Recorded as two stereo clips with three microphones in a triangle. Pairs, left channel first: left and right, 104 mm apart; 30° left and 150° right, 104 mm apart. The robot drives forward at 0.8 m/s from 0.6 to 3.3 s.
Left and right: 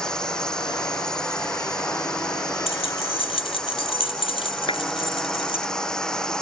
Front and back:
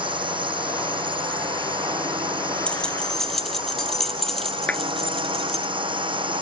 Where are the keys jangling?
110° left; by 5.7 s 120° left.